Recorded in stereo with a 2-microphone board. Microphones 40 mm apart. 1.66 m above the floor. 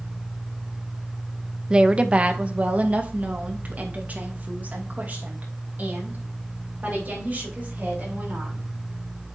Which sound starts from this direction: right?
A woman speaking, at 1.7 s.